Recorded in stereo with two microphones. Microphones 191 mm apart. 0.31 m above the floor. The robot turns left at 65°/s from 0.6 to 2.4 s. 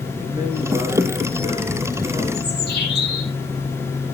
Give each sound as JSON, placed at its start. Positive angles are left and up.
{"t": 0.2, "sound": "a man speaking", "azimuth_deg": -150, "distance_m": 5.0}
{"t": 2.3, "sound": "a bird", "side_deg": 65, "distance_m": 9.0}